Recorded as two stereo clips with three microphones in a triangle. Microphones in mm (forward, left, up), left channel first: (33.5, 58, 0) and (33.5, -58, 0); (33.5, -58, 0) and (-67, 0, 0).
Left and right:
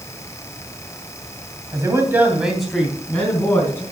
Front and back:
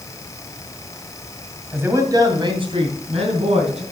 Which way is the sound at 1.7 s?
140° right.